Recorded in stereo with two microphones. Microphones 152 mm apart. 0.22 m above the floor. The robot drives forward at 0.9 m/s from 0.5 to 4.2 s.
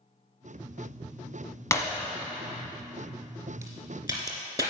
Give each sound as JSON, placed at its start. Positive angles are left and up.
{"t": 1.7, "sound": "breaking glass", "side_deg": 20, "distance_m": 1.1}
{"t": 3.6, "sound": "a crack", "side_deg": -25, "distance_m": 2.5}